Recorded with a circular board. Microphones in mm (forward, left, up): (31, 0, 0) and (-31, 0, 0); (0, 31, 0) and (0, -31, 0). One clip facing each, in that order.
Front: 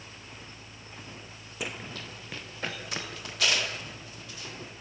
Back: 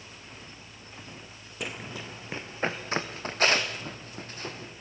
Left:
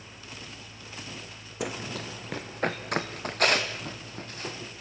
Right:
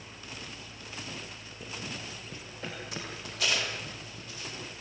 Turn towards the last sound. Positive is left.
turn(degrees=135)